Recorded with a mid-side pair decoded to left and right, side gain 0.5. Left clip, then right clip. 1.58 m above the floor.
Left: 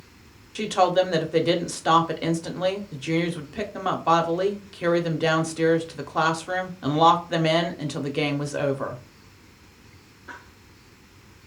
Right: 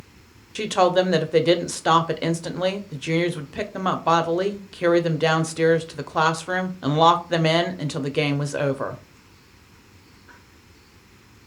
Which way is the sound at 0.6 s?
25° right.